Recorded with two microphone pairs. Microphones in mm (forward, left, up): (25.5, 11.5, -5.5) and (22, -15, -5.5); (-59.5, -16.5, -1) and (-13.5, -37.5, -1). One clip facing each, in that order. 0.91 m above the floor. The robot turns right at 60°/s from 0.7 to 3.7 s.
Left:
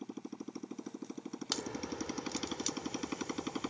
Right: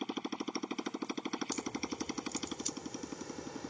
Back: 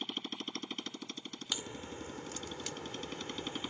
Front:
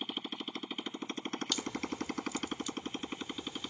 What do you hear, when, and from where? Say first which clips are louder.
0.0 s a motorcycle: right 6 dB, front 1 dB; 105° right; by 3.7 s 75° left
1.5 s a crack: even, front 5 dB; 80° left; by 3.7 s 145° right